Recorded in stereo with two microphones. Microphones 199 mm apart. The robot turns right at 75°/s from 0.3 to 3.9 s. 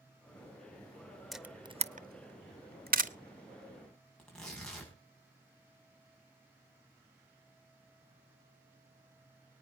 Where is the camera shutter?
Centre (ahead or behind), 0.5 m; by 3.1 s 40° right (ahead or behind), 0.5 m.